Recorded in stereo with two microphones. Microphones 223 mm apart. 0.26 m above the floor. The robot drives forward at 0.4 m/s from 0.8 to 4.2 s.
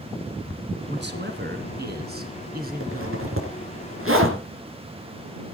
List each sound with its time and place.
0.9 s a man speaking: 55° right (ahead or behind), 2.5 m; by 3.4 s 40° right (ahead or behind), 3 m
2.8 s a zipper: 70° right (ahead or behind), 3.5 m